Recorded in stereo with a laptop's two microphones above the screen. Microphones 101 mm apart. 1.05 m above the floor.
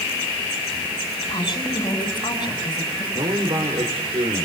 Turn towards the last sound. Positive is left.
turn(degrees=-70)  # may be behind; listen again after turning